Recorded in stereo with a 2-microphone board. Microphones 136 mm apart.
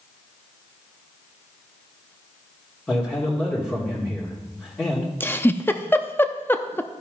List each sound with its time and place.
2.9 s a man speaking: 15° left (ahead or behind), 1.8 m
5.2 s a giggle: 15° left (ahead or behind), 0.6 m